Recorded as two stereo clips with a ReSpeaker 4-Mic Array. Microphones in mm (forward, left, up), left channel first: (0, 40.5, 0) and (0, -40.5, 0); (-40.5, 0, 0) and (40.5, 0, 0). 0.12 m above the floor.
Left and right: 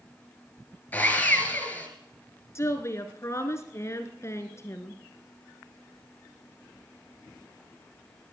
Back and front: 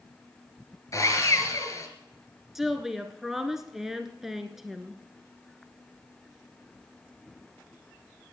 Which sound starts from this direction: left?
A woman speaking, at 2.5 s.